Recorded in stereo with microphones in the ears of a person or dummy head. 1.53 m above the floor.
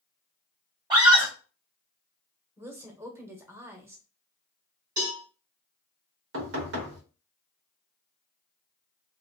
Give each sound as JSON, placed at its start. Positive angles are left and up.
{"t": 0.9, "sound": "a scream", "side_deg": -20, "distance_m": 1.3}
{"t": 2.6, "sound": "a woman speaking", "side_deg": -15, "distance_m": 0.9}
{"t": 5.0, "sound": "a cowbell", "side_deg": -15, "distance_m": 1.7}
{"t": 6.3, "sound": "knocking", "side_deg": -60, "distance_m": 1.3}